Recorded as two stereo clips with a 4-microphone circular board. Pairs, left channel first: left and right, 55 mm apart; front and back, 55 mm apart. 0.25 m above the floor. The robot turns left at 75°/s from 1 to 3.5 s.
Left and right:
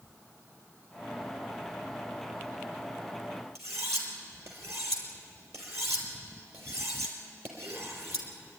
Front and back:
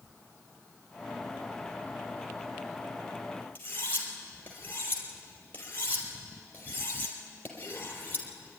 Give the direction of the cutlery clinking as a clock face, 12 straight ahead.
2 o'clock.